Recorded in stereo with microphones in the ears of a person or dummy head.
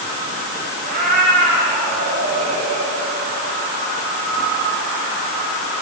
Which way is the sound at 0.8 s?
45° right (ahead or behind).